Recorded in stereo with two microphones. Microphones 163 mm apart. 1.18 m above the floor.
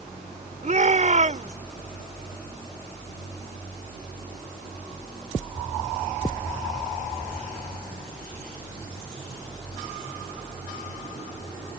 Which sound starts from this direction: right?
A shout, at 0.6 s.